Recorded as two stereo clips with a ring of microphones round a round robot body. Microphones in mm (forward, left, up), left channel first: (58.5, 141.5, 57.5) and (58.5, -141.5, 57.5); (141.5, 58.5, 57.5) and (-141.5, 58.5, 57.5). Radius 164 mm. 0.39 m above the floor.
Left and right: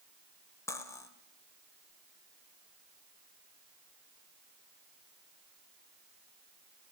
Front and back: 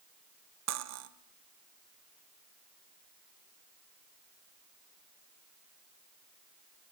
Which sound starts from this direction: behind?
Cutlery clinking, at 0.7 s.